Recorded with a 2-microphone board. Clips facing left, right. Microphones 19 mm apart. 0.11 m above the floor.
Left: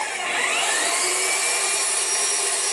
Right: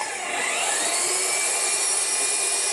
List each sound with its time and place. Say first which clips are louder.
0.0 s an engine running: left 3 dB; 80° left, 9 m